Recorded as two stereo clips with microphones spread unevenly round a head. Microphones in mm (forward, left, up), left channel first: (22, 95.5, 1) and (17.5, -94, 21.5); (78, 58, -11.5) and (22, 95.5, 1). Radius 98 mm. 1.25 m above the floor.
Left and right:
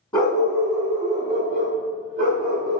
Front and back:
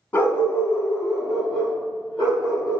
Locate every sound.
0.1 s a dog barking: 25° left, 1.1 m; by 2.8 s 140° right, 2 m